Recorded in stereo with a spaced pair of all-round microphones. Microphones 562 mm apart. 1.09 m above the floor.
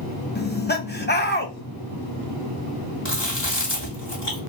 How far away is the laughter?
About 0.9 m.